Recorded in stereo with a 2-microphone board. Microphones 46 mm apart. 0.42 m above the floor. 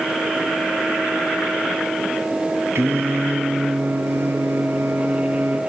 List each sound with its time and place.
2.8 s singing: 75° right (ahead or behind), 2.5 m